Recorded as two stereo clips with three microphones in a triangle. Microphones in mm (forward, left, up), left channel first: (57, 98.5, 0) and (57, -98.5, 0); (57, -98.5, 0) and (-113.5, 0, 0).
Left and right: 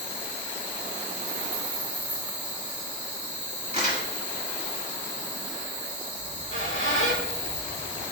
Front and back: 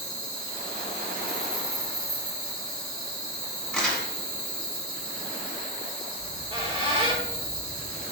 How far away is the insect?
About 2.5 m.